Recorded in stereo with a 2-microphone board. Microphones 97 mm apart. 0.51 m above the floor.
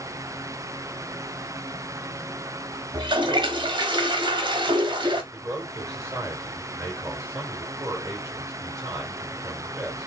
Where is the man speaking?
30° right (ahead or behind), 2 m.